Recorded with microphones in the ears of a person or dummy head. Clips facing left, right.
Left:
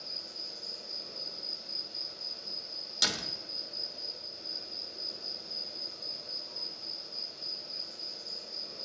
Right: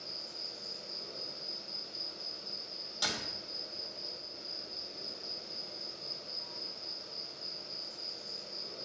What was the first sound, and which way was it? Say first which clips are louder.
An insect: even; 55° right (ahead or behind).